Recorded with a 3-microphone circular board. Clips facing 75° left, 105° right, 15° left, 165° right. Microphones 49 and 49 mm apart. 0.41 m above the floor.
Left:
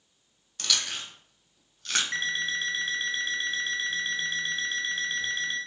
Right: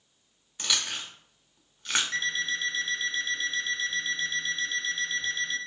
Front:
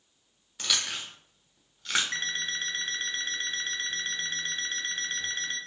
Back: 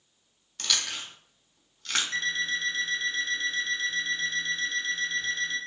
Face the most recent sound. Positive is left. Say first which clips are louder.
# even, back 4 dB
turn(degrees=30)